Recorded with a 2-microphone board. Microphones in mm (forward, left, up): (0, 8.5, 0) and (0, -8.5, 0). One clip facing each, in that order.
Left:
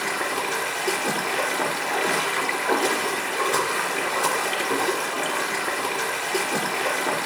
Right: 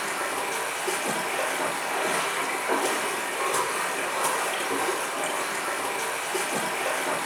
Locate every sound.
0.0 s running water: 70° left (ahead or behind), 2.5 m